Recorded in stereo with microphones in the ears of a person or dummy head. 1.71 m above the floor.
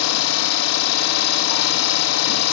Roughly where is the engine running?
Left.